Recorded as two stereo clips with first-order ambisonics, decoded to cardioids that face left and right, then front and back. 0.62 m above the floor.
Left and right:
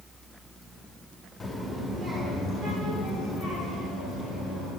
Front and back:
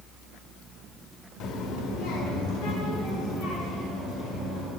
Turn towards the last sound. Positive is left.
turn(degrees=-35)